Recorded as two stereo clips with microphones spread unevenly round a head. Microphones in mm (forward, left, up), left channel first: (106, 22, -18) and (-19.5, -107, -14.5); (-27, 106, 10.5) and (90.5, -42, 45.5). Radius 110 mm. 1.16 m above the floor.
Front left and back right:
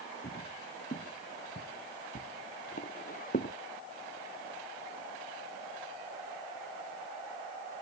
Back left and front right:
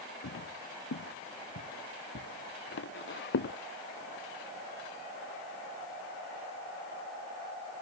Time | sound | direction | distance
0.2 | footsteps | 105° left | ?